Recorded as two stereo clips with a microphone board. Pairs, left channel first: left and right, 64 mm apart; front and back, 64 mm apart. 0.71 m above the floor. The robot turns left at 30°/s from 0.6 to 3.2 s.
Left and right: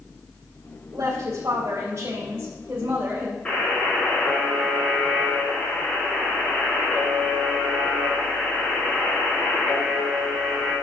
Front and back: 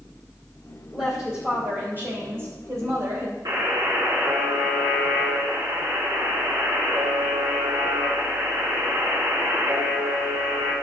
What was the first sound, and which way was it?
A woman speaking, 95° right.